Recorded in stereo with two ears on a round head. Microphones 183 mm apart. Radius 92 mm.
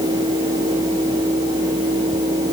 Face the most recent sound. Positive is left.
No sound to turn to.